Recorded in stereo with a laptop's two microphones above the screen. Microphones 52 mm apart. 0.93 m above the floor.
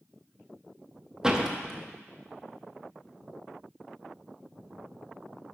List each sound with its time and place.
1.2 s a door slam: 10° right (ahead or behind), 0.6 m